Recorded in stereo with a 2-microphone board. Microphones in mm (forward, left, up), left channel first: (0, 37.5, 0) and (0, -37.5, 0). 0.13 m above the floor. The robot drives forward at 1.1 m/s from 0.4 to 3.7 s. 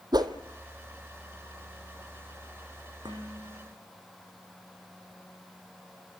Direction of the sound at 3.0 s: 80° right.